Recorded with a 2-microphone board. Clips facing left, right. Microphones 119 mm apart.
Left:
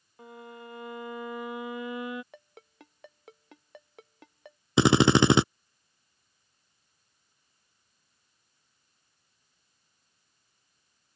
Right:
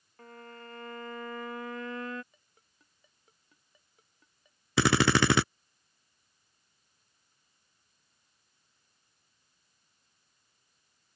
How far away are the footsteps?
I don't hear footsteps.